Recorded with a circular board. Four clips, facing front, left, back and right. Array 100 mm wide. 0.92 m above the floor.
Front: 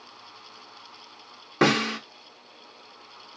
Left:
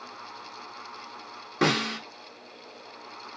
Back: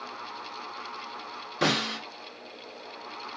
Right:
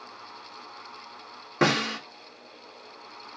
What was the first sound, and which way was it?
A snare drum, 25° right.